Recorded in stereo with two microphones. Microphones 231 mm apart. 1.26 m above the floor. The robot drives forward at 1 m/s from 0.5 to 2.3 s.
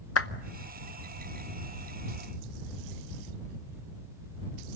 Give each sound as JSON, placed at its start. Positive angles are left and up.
{"t": 0.2, "sound": "a clap", "side_deg": 75, "distance_m": 0.8}